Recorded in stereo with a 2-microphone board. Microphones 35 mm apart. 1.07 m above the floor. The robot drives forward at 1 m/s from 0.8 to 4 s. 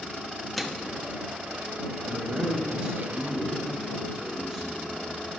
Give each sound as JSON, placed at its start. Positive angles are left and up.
{"t": 0.6, "sound": "a microwave", "side_deg": 5, "distance_m": 0.9}
{"t": 2.1, "sound": "a man speaking", "side_deg": -40, "distance_m": 1.0}